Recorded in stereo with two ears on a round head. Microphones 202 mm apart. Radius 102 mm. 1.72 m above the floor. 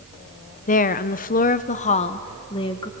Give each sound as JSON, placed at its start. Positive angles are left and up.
{"t": 0.7, "sound": "a woman speaking", "side_deg": 35, "distance_m": 0.7}